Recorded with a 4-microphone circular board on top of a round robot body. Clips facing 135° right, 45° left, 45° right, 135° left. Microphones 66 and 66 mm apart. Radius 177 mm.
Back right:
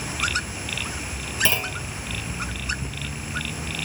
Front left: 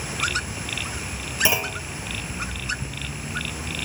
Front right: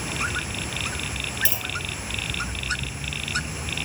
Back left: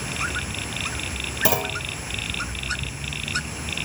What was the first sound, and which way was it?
A clunk, 120° left.